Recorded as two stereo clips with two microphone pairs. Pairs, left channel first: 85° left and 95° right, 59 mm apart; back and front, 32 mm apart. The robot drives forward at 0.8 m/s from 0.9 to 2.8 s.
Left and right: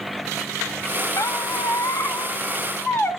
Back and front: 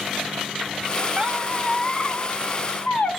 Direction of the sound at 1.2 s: 55° left.